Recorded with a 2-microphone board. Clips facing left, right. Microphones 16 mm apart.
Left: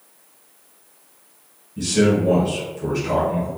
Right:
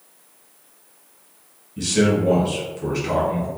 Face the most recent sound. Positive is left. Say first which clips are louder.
# left 1 dB
turn(degrees=-20)  # may be behind; listen again after turning